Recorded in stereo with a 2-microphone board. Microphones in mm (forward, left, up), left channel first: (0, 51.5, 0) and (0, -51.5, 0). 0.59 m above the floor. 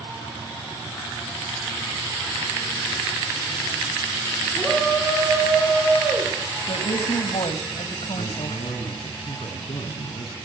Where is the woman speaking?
75° left (ahead or behind), 3.5 m.